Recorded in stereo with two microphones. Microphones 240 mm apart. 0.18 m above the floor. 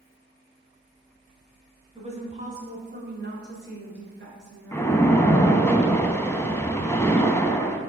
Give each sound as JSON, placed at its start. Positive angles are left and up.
{"t": 1.9, "sound": "a woman speaking", "side_deg": -25, "distance_m": 1.2}
{"t": 4.7, "sound": "a splash", "side_deg": 10, "distance_m": 0.5}